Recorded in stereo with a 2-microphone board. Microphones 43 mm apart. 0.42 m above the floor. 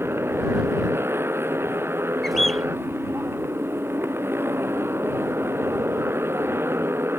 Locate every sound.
0.0 s a motorcycle: 65° right (ahead or behind)
2.2 s a bird: 5° left (ahead or behind)